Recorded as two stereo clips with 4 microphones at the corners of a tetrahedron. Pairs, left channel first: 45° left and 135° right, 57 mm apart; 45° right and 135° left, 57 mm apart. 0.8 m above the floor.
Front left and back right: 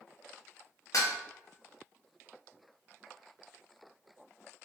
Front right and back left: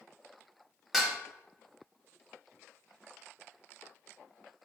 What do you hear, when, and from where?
0.9 s dishes clattering: 55° left, 0.9 m